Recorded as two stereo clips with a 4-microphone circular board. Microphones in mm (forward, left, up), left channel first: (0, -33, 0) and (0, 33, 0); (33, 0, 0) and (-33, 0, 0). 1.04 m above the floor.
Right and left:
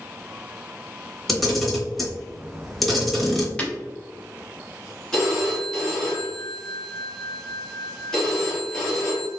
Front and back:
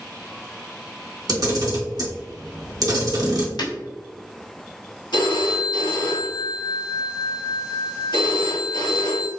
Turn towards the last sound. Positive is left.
turn(degrees=-5)